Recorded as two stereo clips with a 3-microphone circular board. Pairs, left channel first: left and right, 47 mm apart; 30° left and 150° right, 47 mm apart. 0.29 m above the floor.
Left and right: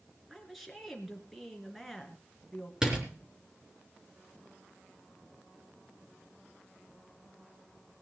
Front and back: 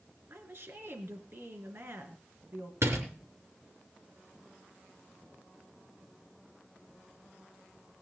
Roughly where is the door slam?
Behind.